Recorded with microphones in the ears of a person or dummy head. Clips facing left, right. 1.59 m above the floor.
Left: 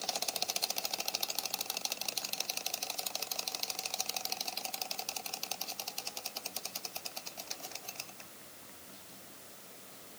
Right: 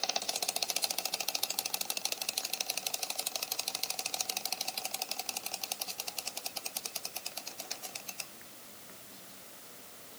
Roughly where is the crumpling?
No crumpling in this recording.